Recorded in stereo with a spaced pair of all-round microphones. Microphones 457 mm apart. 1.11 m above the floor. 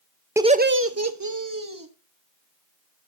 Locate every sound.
0.4 s laughter: 5° right (ahead or behind), 0.5 m; by 1.9 s 45° right (ahead or behind), 1.6 m